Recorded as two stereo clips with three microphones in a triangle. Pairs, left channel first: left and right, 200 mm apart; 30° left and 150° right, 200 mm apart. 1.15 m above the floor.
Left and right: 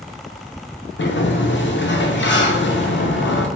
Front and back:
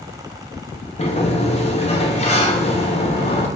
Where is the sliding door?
85° left, 0.5 m.